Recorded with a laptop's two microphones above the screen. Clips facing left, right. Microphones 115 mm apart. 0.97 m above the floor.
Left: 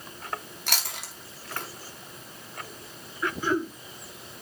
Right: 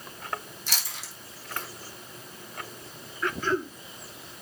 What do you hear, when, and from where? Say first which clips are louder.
0.7 s chewing: left 5 dB; 65° left (ahead or behind), 2.5 m
3.2 s throat clearing: left 1 dB; 10° left (ahead or behind), 1.0 m